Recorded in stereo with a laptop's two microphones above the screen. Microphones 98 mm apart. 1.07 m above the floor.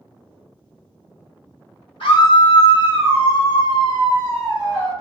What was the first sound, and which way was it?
A scream, 70° left (ahead or behind).